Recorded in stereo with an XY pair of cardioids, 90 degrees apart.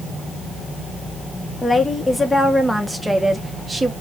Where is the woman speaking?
25° left, 1.7 m; by 3.9 s 15° right, 1.6 m.